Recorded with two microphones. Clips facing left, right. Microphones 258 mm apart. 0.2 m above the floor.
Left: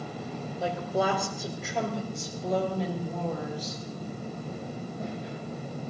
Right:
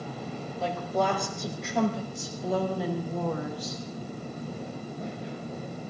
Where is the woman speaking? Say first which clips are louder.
Even; 10° left (ahead or behind), 5 m; by 3.8 s 15° right (ahead or behind), 7 m.